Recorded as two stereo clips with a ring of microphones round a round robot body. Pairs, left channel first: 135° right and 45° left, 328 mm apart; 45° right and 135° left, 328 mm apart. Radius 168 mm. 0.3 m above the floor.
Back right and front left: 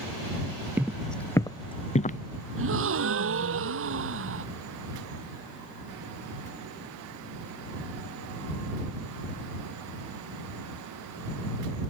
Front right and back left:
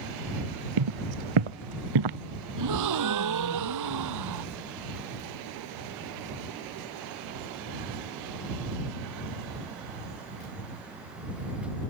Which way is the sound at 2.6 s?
100° left.